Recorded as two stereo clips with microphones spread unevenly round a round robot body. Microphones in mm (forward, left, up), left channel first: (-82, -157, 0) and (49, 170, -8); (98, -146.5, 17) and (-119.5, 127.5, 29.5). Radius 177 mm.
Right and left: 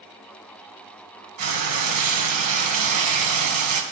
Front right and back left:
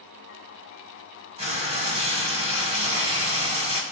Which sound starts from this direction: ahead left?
Frying, at 1.4 s.